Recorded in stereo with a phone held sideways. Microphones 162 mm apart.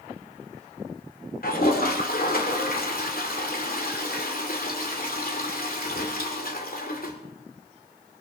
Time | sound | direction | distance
1.4 | a toilet flushing | 70° left (ahead or behind) | 2.5 m